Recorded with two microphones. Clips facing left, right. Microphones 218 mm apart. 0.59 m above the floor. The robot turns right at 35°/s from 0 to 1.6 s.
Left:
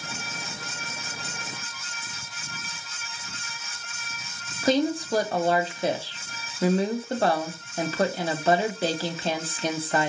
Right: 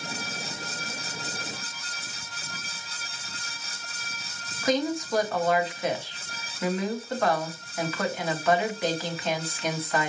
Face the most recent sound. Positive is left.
turn(degrees=30)  # may be behind; listen again after turning